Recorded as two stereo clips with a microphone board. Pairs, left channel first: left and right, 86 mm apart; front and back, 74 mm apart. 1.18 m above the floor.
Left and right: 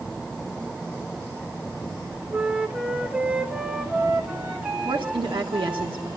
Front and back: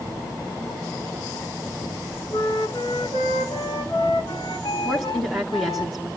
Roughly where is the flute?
Ahead.